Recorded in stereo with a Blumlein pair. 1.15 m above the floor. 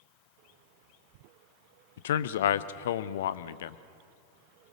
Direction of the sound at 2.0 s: 55° left.